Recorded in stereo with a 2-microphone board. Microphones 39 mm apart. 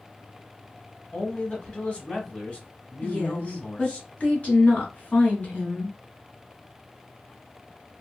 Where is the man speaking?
30° left (ahead or behind), 1.4 m.